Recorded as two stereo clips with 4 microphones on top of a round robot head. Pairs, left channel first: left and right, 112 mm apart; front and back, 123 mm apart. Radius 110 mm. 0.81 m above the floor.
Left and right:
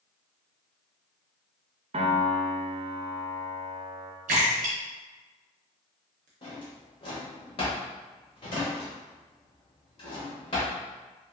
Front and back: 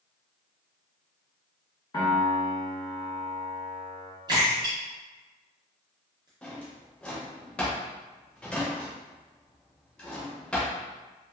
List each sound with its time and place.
1.9 s a piano: 60° right, 0.6 m
4.3 s a splash: 110° right, 0.5 m
6.4 s a drawer: 80° left, 0.6 m